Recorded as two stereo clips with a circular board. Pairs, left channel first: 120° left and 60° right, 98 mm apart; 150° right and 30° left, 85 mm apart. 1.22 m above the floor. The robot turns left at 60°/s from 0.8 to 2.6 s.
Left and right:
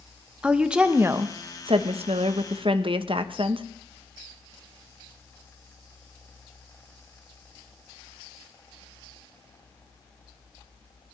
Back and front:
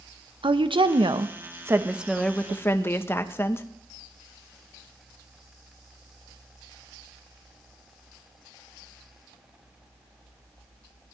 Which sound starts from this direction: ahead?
A woman speaking, at 0.4 s.